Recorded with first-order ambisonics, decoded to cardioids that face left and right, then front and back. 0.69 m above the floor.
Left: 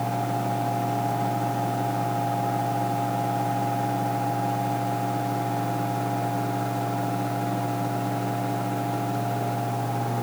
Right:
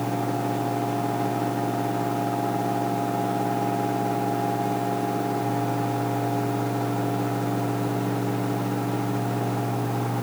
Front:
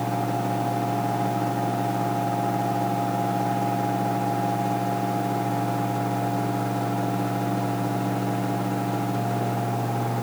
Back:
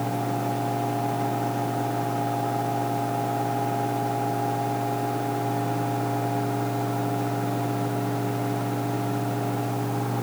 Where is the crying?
I don't hear crying.